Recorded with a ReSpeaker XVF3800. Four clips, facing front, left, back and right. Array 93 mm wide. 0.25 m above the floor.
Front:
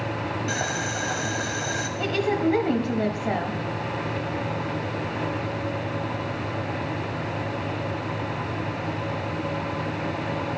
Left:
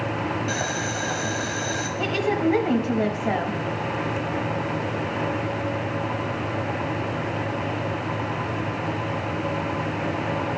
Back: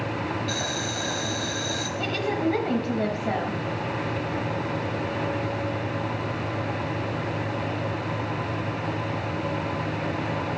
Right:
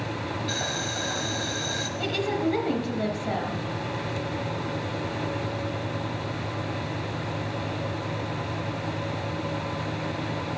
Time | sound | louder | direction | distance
0.5 | boiling | left 4 dB, front 2 dB | 40° left | 1.2 m
2.0 | a woman speaking | left 4 dB, front 3 dB | 80° left | 1.1 m